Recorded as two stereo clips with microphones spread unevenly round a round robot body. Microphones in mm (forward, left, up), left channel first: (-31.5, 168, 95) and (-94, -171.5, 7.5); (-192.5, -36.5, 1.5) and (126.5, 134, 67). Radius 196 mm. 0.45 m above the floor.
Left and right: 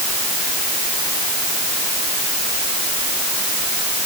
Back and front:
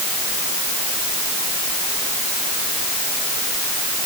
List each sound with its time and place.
Only background noise.